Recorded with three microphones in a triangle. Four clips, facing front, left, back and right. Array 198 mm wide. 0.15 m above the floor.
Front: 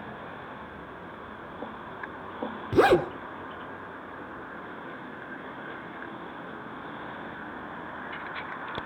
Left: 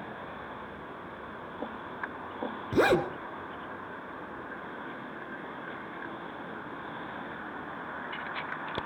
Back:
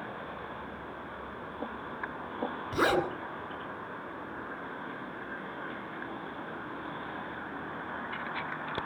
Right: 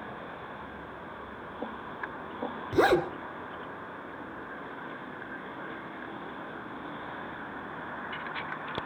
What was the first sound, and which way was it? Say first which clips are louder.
A zipper: right 1 dB, front 8 dB; 30° left.